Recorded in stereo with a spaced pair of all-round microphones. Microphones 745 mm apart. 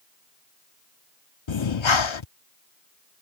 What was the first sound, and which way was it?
Breathing, 40° left (ahead or behind).